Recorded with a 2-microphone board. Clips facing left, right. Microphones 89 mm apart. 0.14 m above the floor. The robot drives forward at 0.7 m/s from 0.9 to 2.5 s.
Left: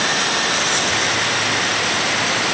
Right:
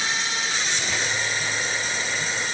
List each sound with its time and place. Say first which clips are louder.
0.0 s running water: left 8 dB; 70° left (ahead or behind); by 2.5 s 80° left